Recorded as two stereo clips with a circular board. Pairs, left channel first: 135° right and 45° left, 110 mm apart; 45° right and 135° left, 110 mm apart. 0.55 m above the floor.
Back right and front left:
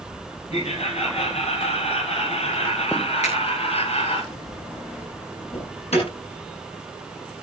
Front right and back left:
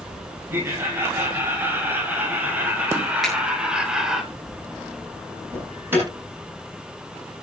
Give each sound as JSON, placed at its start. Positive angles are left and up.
{"t": 0.5, "sound": "laughter", "azimuth_deg": -155, "distance_m": 4.5}
{"t": 3.2, "sound": "a finger snap", "azimuth_deg": -135, "distance_m": 9.5}
{"t": 5.5, "sound": "an alarm", "azimuth_deg": -155, "distance_m": 10.0}